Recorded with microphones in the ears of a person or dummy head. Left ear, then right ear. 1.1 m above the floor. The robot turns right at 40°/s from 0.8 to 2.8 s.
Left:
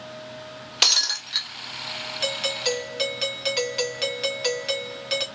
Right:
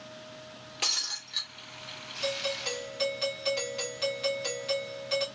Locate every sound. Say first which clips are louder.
0.8 s breaking glass: left 10 dB; 55° left (ahead or behind), 1.0 m; by 1.5 s 65° left (ahead or behind), 1.0 m
2.2 s a doorbell: left 6 dB; 40° left (ahead or behind), 0.9 m; by 5.2 s 35° left (ahead or behind), 0.9 m